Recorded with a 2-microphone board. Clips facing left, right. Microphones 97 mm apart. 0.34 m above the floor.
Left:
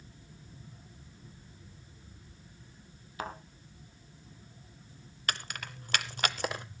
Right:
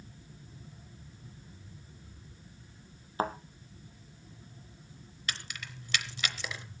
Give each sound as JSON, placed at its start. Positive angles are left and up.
{"t": 3.2, "sound": "a thud", "side_deg": -35, "distance_m": 1.6}
{"t": 5.3, "sound": "keys jangling", "side_deg": 45, "distance_m": 0.9}